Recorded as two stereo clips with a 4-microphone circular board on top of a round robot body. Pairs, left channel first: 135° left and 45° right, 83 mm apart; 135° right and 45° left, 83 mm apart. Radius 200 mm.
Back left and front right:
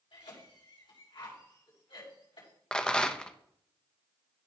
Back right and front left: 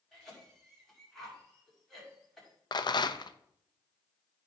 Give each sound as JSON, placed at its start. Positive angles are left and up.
{"t": 0.1, "sound": "a cough", "azimuth_deg": 140, "distance_m": 5.5}
{"t": 2.7, "sound": "a rattle", "azimuth_deg": -145, "distance_m": 0.8}